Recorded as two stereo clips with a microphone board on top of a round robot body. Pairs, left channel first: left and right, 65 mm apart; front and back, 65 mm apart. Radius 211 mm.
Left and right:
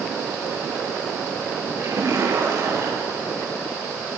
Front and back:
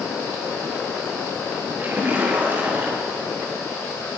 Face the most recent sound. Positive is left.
turn(degrees=-120)